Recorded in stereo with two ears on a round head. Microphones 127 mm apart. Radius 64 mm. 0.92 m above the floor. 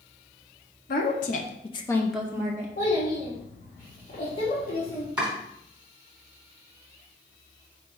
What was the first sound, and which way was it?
A woman speaking, 65° left (ahead or behind).